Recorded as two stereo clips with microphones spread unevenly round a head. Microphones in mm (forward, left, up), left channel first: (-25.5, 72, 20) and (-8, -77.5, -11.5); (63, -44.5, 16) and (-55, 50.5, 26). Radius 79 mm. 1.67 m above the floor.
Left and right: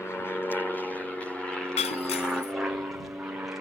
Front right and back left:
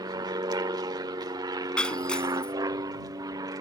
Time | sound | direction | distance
0.0 | an aircraft | straight behind | ?
1.8 | breaking glass | 45° left | ?